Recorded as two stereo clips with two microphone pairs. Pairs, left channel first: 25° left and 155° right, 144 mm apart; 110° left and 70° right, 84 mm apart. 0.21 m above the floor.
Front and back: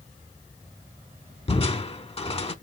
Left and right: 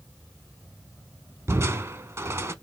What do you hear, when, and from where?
1.5 s crushing: 20° right, 0.5 m